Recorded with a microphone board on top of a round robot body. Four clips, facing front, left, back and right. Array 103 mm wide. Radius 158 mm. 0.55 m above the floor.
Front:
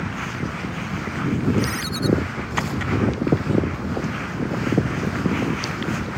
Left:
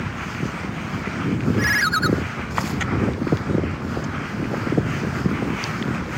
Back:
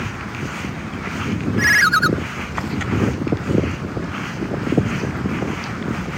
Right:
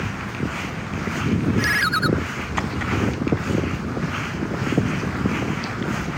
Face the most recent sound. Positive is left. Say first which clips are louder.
# left 1 dB, back 8 dB
turn(degrees=175)